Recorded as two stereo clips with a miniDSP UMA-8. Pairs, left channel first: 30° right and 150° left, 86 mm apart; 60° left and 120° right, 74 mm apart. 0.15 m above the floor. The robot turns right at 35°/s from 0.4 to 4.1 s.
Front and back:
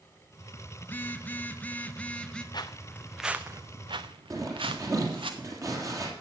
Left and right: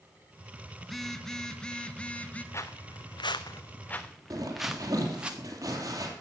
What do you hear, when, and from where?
0.8 s a phone buzzing: 25° right, 0.8 m; by 2.4 s 30° left, 0.8 m
2.5 s footsteps: 5° left, 0.9 m; by 5.3 s 165° left, 1.8 m
4.3 s a zipper: 160° right, 3 m